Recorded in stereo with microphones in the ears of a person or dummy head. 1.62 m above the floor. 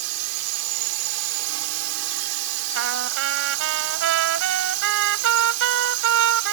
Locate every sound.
0.0 s a drone: 80° right
2.8 s a trumpet: 75° right (ahead or behind)